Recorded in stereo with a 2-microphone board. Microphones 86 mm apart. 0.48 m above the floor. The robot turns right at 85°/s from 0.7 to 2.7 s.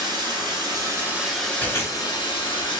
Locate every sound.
0.0 s running water: 55° right, 1.1 m; by 2.8 s 115° left, 1.1 m
1.6 s chewing: 25° left (ahead or behind), 1.9 m; by 2.8 s 35° left (ahead or behind), 1.9 m